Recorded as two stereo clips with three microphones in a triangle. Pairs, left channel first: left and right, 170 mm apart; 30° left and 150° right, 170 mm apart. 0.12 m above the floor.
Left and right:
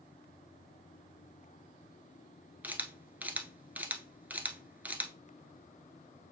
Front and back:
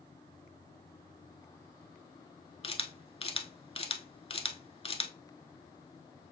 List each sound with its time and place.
2.6 s a camera shutter: 15° right, 0.7 m